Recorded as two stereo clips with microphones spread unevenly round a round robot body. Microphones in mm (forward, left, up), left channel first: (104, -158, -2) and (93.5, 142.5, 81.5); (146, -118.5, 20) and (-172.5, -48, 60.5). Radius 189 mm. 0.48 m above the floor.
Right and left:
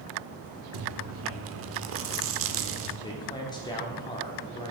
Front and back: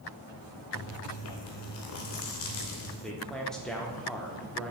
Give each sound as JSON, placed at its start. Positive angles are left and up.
{"t": 0.7, "sound": "chewing", "azimuth_deg": 40, "distance_m": 0.6}
{"t": 3.0, "sound": "a man speaking", "azimuth_deg": -85, "distance_m": 0.7}